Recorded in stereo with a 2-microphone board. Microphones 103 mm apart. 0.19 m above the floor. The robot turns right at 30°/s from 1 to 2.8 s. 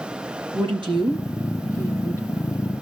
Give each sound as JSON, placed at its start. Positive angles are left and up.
{"t": 0.5, "sound": "a woman speaking", "azimuth_deg": -60, "distance_m": 3.5}